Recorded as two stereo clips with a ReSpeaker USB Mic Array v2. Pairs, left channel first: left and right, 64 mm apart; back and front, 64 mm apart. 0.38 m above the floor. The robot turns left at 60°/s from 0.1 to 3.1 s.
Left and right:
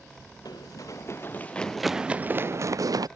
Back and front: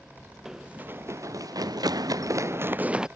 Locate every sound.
0.5 s running footsteps: 85° left; by 3.1 s 80° right